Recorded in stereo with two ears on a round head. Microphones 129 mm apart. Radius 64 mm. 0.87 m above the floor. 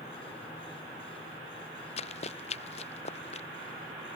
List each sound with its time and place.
2.0 s running footsteps: 45° left (ahead or behind)